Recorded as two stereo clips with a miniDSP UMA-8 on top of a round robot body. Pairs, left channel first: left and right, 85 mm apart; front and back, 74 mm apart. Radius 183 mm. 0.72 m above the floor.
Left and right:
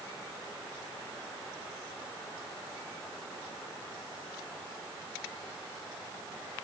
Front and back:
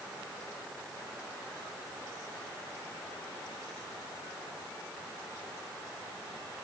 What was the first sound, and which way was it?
Only background noise.